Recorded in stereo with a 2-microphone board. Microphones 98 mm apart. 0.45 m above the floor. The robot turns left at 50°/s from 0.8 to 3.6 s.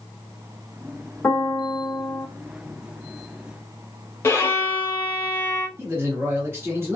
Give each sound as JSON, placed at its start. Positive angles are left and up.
{"t": 1.2, "sound": "a piano", "side_deg": 20, "distance_m": 0.8}
{"t": 4.2, "sound": "a violin", "side_deg": 25, "distance_m": 1.1}
{"t": 5.8, "sound": "a man speaking", "side_deg": -25, "distance_m": 1.5}